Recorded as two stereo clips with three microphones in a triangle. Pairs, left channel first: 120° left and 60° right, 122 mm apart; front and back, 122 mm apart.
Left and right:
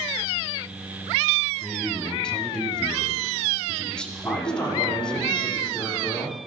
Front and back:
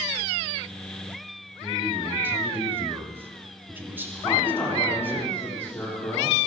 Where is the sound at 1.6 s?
175° right, 1.2 m.